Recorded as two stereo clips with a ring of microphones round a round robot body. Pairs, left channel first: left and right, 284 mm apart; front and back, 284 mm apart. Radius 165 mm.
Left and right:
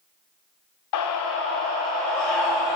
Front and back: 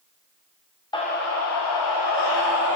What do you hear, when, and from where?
0.9 s a scream: 75° left, 0.7 m; by 2.8 s straight ahead, 1.7 m